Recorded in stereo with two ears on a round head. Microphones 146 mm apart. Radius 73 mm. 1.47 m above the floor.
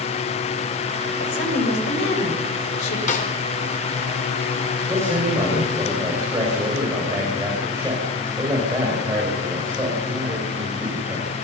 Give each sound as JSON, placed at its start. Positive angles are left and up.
{"t": 1.2, "sound": "a woman speaking", "side_deg": 75, "distance_m": 6.5}
{"t": 3.1, "sound": "a snare drum", "side_deg": 50, "distance_m": 4.5}
{"t": 4.9, "sound": "a man speaking", "side_deg": -20, "distance_m": 6.5}